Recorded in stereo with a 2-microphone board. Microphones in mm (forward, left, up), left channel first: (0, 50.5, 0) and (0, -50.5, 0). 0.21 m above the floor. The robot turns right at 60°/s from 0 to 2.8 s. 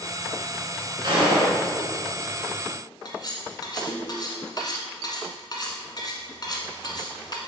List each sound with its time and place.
1.0 s a gunshot: 120° right, 2.5 m; by 1.6 s 90° right, 2.5 m
3.0 s cutlery clinking: 45° left (ahead or behind), 1.3 m